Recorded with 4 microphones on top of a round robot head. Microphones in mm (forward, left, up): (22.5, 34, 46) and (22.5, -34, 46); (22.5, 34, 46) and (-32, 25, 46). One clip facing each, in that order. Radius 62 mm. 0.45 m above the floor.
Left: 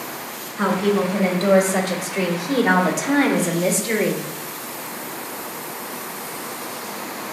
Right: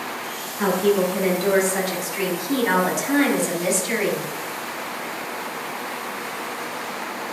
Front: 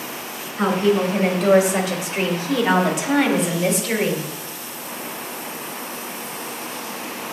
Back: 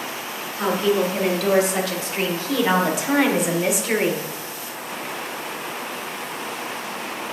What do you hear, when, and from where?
0.6 s a woman speaking: 70° left, 2.5 m; by 4.3 s 130° left, 1.5 m